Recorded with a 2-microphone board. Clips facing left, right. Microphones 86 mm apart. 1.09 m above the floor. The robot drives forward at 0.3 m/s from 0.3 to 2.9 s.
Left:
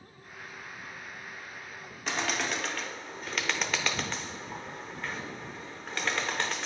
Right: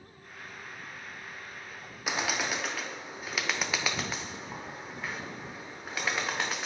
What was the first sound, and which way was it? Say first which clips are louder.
A bird: even; 10° right (ahead or behind).